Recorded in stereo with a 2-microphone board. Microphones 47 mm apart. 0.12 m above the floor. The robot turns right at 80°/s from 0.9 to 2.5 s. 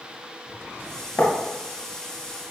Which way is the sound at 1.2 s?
45° left (ahead or behind).